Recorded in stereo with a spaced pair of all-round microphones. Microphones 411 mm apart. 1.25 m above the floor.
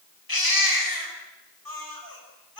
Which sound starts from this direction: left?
A baby crying, at 0.3 s.